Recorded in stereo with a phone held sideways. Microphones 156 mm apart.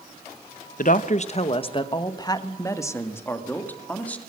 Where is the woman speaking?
60° left (ahead or behind), 0.9 m; by 4.2 s 10° left (ahead or behind), 2.5 m.